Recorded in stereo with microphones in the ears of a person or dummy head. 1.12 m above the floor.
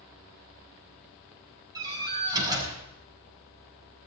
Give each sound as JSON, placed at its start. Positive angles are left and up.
{"t": 1.8, "sound": "a door slam", "side_deg": -20, "distance_m": 6.0}